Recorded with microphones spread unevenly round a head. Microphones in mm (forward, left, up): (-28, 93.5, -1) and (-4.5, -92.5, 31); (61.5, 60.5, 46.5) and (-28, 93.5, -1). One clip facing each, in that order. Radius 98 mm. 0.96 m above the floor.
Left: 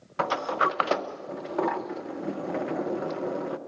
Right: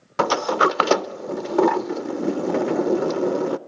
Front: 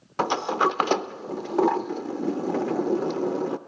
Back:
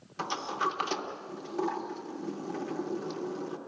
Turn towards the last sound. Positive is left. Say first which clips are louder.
# right 8 dB, front 9 dB
turn(degrees=-70)